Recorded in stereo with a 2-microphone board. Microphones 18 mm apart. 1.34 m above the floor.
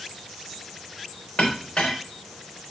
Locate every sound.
1.4 s a clink: 55° left (ahead or behind), 4.5 m